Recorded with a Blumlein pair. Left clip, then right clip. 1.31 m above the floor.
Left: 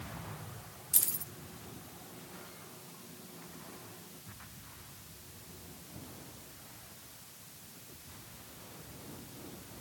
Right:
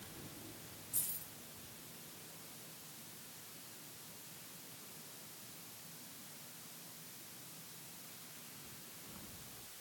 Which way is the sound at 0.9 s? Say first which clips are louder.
Left 10 dB; 55° left.